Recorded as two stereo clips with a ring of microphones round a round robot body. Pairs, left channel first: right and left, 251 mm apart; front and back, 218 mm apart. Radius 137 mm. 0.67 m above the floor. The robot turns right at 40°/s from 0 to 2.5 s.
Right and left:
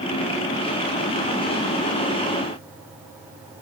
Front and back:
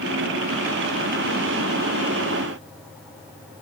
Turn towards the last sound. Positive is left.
No sound to turn to.